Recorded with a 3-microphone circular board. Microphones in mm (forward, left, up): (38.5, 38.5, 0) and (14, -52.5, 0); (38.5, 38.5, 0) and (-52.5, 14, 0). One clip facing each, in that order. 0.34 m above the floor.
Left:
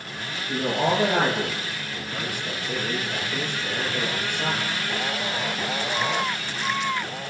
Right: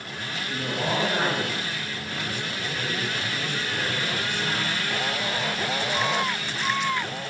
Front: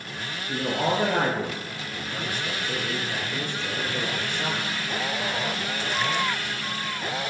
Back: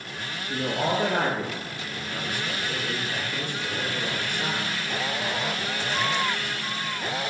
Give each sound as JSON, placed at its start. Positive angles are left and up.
{"t": 0.5, "sound": "a man speaking", "azimuth_deg": 55, "distance_m": 6.5}